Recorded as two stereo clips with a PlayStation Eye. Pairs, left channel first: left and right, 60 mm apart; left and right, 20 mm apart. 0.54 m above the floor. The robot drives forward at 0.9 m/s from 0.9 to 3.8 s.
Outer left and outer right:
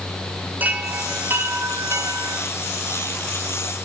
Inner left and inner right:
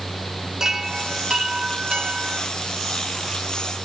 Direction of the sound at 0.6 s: 30° right (ahead or behind).